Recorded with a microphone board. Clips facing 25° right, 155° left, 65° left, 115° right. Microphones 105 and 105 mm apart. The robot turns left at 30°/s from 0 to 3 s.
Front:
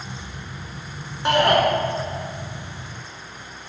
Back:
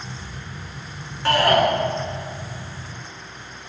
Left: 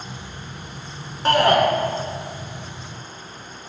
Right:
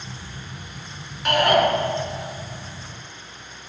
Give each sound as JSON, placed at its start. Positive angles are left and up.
{"t": 1.2, "sound": "a shout", "azimuth_deg": 40, "distance_m": 1.3}